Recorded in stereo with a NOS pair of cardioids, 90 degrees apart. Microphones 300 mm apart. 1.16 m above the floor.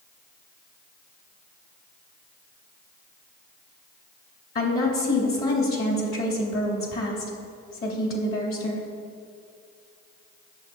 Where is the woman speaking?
45° left, 3 m.